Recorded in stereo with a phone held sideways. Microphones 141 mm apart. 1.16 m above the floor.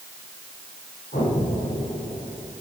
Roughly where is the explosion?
Left.